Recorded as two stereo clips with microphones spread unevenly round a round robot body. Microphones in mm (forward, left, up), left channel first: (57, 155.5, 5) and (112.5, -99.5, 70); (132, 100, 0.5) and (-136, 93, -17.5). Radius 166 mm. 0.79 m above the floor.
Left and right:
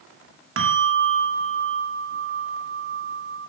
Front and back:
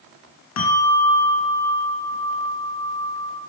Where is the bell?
45° right, 2 m.